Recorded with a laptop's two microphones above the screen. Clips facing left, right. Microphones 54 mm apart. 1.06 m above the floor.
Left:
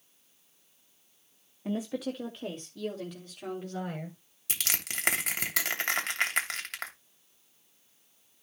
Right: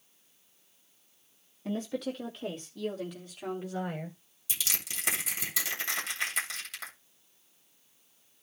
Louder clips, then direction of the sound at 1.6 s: Left 1 dB; 10° left (ahead or behind).